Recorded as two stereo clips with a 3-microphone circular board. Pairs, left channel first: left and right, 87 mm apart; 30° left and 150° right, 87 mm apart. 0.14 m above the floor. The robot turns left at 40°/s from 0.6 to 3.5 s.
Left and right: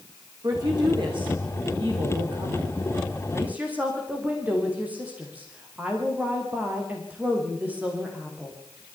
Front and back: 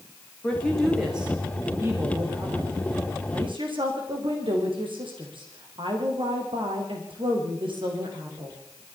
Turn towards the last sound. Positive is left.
turn(degrees=-165)